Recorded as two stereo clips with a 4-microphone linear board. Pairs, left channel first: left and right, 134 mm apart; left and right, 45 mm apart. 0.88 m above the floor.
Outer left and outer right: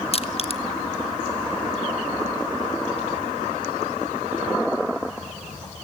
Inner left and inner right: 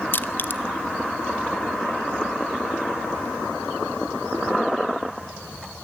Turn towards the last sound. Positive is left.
turn(degrees=45)  # may be behind; listen again after turning